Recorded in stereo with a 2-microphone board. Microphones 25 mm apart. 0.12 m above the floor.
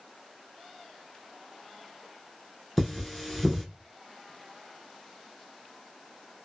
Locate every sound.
2.8 s cutlery clinking: centre (ahead or behind), 0.9 m